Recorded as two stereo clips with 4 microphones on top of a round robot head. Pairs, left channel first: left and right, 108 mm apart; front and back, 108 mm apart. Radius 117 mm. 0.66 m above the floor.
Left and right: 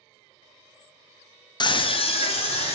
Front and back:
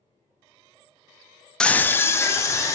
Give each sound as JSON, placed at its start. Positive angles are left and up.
{"t": 1.6, "sound": "a scream", "azimuth_deg": 80, "distance_m": 0.6}